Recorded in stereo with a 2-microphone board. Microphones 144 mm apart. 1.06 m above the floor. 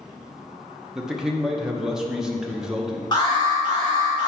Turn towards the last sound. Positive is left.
turn(degrees=30)  # may be behind; listen again after turning